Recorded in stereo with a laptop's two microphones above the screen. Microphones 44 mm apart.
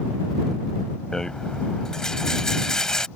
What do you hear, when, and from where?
1.1 s a rattle: 15° left (ahead or behind)